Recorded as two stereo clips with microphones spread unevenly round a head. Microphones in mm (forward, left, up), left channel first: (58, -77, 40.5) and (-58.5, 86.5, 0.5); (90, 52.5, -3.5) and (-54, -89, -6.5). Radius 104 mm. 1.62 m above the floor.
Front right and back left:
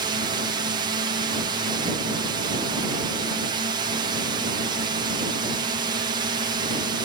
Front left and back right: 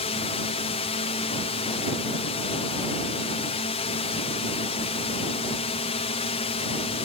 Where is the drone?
90° left.